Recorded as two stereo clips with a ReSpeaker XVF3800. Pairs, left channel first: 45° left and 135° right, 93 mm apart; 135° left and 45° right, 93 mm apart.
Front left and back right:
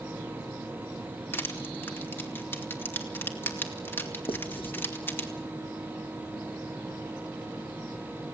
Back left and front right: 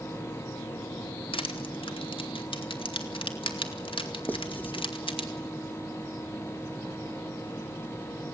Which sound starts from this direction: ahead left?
Writing, at 4.3 s.